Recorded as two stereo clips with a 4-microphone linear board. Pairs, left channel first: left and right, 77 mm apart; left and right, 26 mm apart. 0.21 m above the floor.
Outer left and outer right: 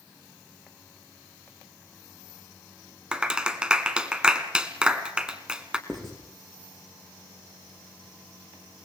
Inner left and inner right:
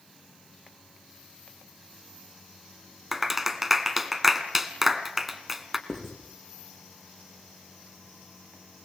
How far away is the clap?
About 1.3 m.